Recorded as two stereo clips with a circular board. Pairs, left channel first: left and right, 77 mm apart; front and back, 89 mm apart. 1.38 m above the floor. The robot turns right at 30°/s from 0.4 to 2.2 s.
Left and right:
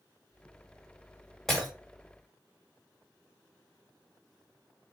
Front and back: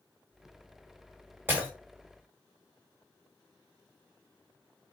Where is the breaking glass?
175° left, 1.0 m; by 1.7 s straight behind, 1.0 m.